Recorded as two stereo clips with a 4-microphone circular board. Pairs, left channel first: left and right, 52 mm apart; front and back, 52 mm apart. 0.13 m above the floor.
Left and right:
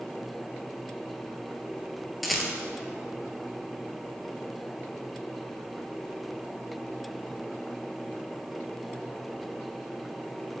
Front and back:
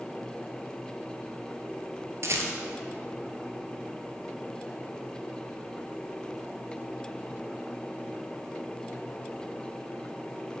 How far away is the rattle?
About 0.9 m.